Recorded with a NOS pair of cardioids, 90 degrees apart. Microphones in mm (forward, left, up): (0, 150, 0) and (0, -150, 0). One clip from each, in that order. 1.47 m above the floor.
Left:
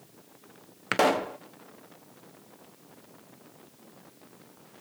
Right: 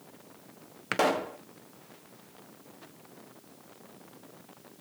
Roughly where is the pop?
Ahead.